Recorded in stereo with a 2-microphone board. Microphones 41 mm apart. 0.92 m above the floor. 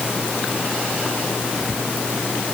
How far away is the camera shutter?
No camera shutter in this recording.